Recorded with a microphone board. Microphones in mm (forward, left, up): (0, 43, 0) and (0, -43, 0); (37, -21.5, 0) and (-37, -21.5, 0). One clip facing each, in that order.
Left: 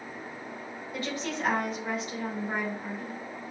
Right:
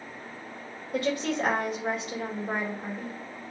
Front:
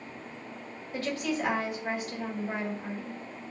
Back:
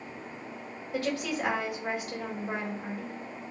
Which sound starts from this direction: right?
A woman speaking, at 0.9 s.